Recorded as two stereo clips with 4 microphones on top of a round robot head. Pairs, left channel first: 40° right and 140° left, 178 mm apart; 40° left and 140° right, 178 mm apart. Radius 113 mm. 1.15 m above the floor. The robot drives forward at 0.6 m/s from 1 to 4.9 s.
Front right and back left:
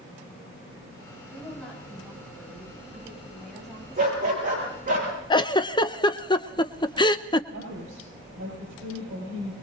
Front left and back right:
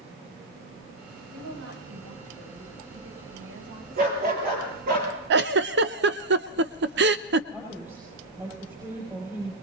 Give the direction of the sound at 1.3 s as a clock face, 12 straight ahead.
4 o'clock.